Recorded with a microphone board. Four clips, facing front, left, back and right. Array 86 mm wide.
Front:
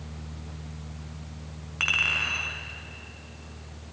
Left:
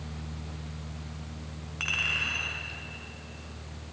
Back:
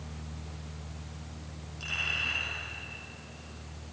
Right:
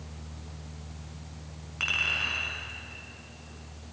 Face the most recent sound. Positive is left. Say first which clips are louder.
# right 1 dB, front 7 dB
turn(degrees=0)